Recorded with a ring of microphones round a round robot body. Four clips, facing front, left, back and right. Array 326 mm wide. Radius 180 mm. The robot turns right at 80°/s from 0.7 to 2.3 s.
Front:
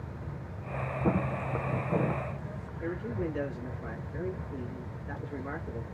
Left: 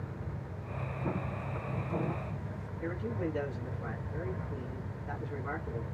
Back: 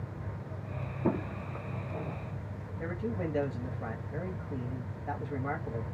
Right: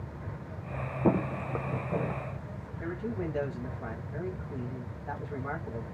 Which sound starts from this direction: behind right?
A man speaking, at 2.8 s.